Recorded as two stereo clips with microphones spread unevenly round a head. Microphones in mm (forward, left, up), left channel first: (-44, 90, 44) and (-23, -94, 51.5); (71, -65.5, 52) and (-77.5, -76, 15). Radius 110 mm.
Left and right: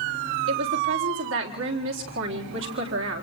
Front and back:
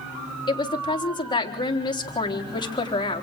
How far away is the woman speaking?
About 4 m.